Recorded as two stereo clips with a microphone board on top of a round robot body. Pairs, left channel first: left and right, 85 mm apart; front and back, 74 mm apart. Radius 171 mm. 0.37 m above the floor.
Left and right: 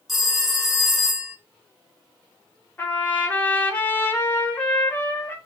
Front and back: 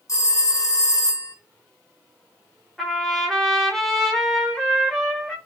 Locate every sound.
0.1 s a phone ringing: 5° right, 1.1 m
2.8 s a trumpet: 85° left, 1.2 m